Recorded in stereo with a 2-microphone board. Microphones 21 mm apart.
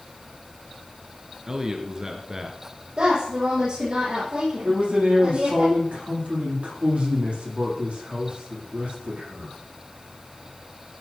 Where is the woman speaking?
60° right (ahead or behind), 7.5 m.